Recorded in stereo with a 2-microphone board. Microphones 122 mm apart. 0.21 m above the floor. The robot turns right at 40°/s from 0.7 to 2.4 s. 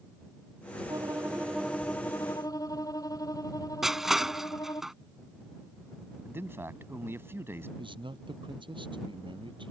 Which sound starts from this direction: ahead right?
A violin, at 0.9 s.